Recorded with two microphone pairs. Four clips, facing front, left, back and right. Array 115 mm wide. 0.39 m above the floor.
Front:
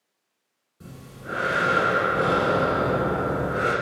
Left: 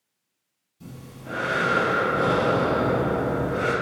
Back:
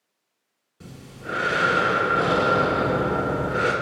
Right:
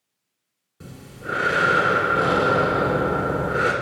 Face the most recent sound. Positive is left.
turn(degrees=-95)